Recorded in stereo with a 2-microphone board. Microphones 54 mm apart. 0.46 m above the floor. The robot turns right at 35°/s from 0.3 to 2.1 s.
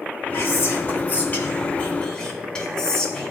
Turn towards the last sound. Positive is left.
turn(degrees=15)  # may be behind; listen again after turning